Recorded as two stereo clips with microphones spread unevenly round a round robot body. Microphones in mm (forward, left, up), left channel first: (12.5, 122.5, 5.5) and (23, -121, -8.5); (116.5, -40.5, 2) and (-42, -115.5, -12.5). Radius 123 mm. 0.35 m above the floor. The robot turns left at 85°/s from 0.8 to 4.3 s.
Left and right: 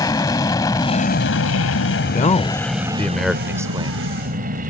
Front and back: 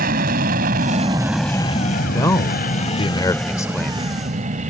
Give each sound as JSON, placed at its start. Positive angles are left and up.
{"t": 0.0, "sound": "an aircraft", "azimuth_deg": 165}
{"t": 2.0, "sound": "a man speaking", "azimuth_deg": 100}